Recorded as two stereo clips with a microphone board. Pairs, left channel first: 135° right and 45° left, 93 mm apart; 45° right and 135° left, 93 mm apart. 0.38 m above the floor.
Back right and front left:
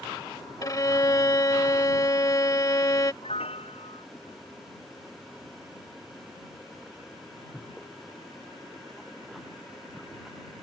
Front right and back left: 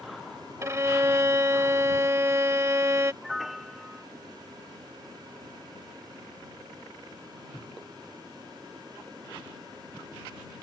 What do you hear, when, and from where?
0.6 s a violin: 175° right
3.2 s a piano: 135° right